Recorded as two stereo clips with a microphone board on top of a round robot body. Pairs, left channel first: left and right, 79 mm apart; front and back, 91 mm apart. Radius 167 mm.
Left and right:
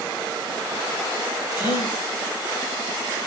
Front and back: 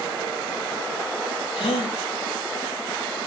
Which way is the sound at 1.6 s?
30° right.